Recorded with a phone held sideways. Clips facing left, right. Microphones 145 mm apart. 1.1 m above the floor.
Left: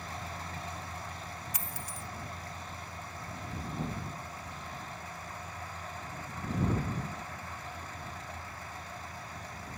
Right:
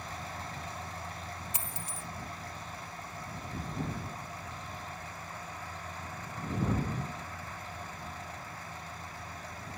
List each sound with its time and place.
1.5 s a dropped coin: 25° right (ahead or behind)